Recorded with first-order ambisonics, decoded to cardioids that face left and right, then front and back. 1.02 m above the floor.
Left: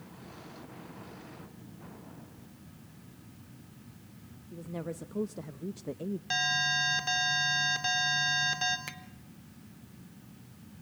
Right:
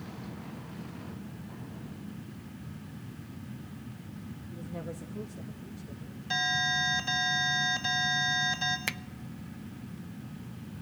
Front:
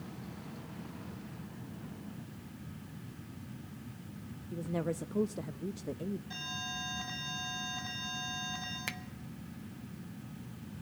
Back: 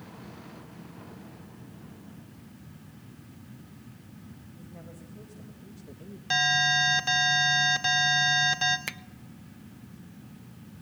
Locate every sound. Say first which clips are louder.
4.5 s a woman speaking: left 2 dB, front 15 dB; 10° left, 1.0 m; by 6.2 s 70° left, 0.6 m
6.3 s an alarm: even, back 19 dB; 165° left, 4 m
8.9 s a finger snap: right 9 dB, back 3 dB; 115° right, 0.6 m